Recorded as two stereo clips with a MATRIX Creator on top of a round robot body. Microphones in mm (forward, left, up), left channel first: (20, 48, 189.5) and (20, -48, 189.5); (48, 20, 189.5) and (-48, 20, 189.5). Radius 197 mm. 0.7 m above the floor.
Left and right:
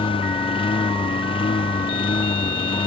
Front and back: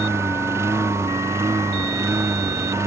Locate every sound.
0.0 s a lawn mower: 120° left